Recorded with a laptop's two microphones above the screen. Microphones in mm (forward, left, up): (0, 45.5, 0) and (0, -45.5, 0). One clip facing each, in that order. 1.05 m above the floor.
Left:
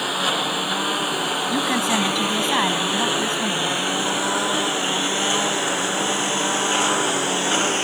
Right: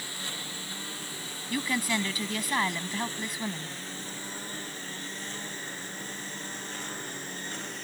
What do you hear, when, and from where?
0.0 s a lawn mower: 70° left (ahead or behind); by 7.8 s 85° left
1.5 s a woman speaking: 25° left (ahead or behind)